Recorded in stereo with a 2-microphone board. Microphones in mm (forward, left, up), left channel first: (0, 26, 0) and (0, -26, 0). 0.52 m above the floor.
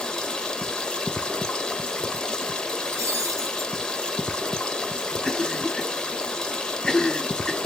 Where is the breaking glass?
80° right, 2.5 m.